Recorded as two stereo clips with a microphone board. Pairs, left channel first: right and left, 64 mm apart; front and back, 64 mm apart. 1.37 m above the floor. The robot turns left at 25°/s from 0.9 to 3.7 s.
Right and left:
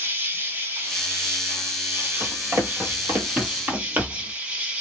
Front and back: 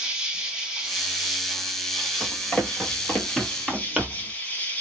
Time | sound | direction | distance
0.0 | an insect | 110° left | 1.0 m
2.2 | running footsteps | 65° left | 1.9 m